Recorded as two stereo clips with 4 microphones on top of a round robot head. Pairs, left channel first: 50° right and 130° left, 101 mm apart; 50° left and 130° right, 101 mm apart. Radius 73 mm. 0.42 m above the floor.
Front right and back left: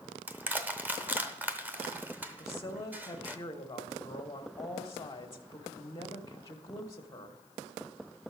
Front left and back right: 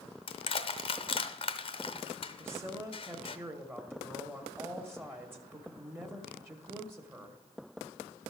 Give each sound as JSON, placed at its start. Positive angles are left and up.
{"t": 0.3, "sound": "crushing", "azimuth_deg": 60, "distance_m": 0.8}
{"t": 2.4, "sound": "a woman speaking", "azimuth_deg": -80, "distance_m": 1.1}